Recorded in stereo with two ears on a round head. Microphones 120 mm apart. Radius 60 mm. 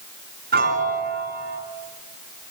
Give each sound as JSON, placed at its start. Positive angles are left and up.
{"t": 0.5, "sound": "a piano", "side_deg": -85, "distance_m": 4.5}